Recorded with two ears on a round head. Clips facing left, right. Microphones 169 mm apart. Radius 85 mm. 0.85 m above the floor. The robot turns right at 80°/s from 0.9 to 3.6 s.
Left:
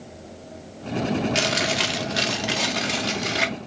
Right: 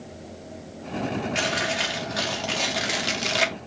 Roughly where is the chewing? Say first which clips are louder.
Left 3 dB; left.